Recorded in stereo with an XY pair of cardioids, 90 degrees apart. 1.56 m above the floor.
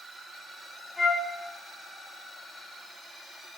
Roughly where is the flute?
Ahead left.